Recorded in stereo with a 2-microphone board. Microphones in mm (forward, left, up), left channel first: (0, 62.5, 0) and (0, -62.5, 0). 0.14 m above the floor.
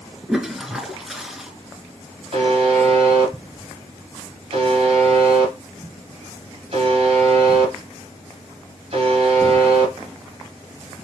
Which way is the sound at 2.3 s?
50° right (ahead or behind).